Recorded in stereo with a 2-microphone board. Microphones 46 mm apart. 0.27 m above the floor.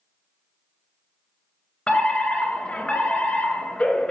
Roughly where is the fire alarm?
Left.